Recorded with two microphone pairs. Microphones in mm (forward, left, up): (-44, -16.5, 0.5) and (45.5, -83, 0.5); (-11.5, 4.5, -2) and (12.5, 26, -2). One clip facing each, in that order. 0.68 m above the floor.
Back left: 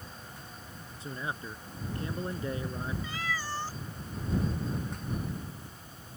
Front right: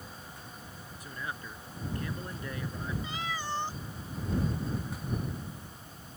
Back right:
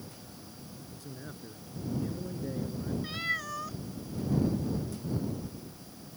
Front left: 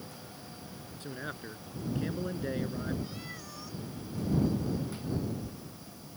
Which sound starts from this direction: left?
A man speaking, at 1.0 s.